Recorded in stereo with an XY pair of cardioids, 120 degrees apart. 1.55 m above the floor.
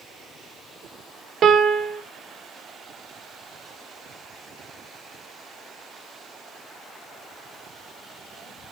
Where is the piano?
50° right, 0.5 m.